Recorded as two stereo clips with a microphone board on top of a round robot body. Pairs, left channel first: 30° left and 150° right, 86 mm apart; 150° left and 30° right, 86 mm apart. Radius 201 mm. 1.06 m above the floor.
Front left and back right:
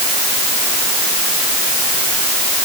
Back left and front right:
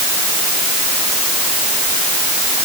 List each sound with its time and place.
Only background noise.